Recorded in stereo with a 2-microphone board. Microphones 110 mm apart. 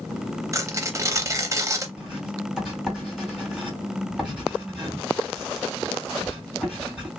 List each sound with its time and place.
0.5 s tearing paper: 30° right (ahead or behind), 0.6 m
2.0 s writing: 5° right (ahead or behind), 2 m